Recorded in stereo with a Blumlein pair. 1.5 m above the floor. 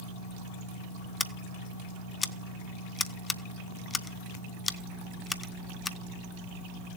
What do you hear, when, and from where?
1.2 s scissors: 15° left, 0.6 m